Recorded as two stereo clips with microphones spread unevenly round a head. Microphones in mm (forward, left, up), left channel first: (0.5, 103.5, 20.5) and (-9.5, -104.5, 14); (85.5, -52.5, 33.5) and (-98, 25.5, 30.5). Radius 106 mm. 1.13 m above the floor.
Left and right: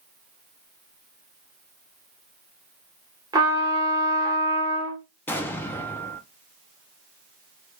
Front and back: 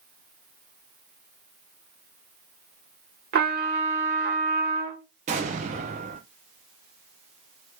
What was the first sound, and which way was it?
A trumpet, 165° right.